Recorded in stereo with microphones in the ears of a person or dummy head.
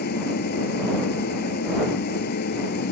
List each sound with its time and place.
0.0 s an engine running: 50° left (ahead or behind)